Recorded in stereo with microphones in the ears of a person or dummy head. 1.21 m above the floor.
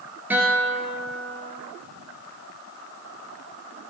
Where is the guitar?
15° right (ahead or behind), 3.5 m.